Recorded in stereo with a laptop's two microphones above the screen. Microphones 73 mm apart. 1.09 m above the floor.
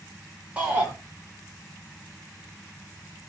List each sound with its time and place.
0.6 s a shout: 20° right (ahead or behind), 2.5 m